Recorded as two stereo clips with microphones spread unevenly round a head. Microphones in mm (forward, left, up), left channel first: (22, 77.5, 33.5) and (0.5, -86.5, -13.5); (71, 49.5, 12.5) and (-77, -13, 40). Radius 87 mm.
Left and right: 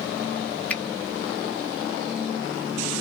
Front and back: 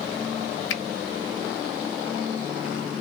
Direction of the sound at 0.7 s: 5° left.